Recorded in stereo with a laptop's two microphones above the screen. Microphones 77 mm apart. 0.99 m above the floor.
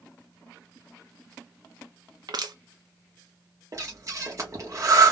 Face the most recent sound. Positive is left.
turn(degrees=-45)  # may be behind; listen again after turning